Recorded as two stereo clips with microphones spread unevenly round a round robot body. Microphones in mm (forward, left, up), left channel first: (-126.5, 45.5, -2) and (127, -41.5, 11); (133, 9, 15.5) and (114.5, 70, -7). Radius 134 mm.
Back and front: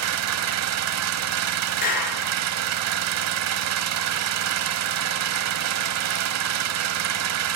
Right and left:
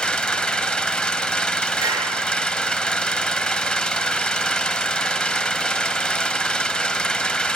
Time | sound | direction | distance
0.0 | an engine running | 10° left | 1.0 m
1.8 | a clap | 100° left | 5 m